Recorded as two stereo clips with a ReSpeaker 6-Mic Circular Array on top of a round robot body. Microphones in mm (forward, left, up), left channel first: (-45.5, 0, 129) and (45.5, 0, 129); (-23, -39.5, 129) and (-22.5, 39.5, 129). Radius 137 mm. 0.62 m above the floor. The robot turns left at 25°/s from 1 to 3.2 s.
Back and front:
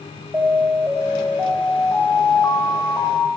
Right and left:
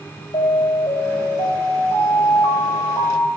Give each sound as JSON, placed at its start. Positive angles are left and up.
{"t": 0.3, "sound": "an alarm", "azimuth_deg": -70, "distance_m": 4.0}